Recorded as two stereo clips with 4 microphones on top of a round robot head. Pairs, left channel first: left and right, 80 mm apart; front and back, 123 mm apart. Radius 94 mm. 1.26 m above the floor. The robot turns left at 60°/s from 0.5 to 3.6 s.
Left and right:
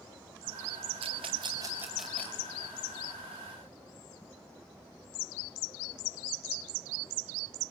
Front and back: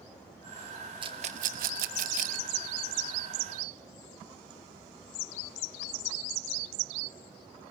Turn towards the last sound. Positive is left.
turn(degrees=85)